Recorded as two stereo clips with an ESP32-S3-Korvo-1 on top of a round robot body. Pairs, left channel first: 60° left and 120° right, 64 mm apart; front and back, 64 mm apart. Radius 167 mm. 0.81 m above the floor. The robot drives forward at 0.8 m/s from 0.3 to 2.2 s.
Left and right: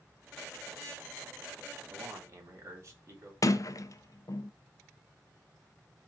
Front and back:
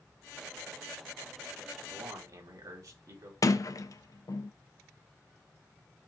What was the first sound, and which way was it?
A man speaking, 160° right.